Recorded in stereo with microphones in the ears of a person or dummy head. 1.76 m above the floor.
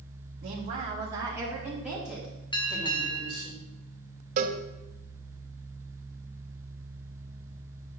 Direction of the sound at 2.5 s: 25° left (ahead or behind).